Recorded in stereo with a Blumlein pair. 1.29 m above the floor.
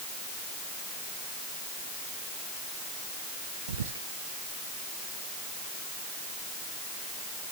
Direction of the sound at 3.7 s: 65° right.